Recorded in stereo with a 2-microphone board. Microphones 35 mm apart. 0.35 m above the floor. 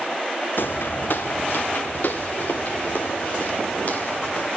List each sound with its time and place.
0.6 s footsteps: 70° left (ahead or behind), 1.0 m; by 4.5 s 50° left (ahead or behind), 3.5 m